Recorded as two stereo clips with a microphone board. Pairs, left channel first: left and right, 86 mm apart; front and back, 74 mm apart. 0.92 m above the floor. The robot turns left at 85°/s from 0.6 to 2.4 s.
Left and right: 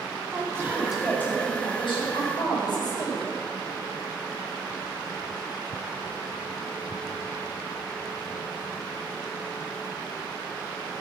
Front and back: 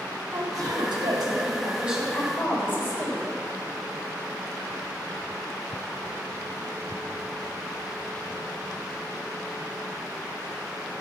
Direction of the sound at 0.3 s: 150° right.